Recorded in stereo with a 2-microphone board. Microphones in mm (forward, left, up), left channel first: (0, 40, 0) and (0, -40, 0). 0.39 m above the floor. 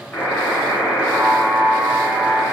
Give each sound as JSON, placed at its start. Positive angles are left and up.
{"t": 0.1, "sound": "a buzzer", "side_deg": 25, "distance_m": 5.5}